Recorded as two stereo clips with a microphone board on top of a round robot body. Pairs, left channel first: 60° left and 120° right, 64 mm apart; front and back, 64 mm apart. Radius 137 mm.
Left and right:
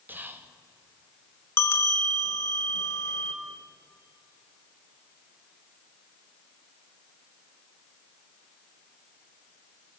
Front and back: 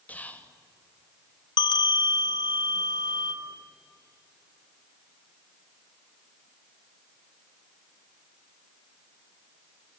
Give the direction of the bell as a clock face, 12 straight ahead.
12 o'clock.